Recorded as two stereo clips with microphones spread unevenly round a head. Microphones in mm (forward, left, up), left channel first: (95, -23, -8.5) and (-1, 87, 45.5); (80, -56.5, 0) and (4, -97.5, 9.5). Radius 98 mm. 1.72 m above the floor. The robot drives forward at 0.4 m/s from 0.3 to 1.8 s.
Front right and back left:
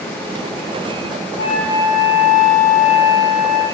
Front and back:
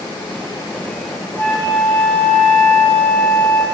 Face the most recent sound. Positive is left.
turn(degrees=-35)